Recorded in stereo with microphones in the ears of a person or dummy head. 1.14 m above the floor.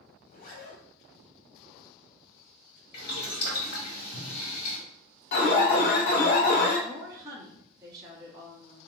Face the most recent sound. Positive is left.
turn(degrees=-25)  # may be behind; listen again after turning